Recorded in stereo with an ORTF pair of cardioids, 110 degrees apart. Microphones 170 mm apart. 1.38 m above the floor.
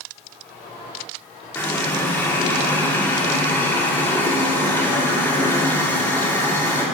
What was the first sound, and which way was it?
A running tap, 10° left.